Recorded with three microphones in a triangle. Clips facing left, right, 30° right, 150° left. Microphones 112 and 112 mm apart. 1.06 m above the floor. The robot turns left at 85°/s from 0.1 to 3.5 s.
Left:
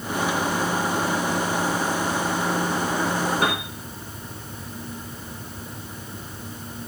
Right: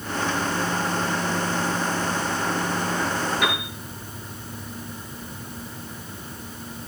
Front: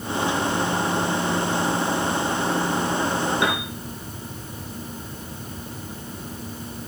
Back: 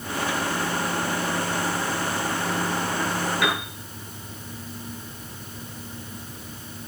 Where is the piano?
35° left, 4.5 m; by 3.7 s 25° left, 4.5 m.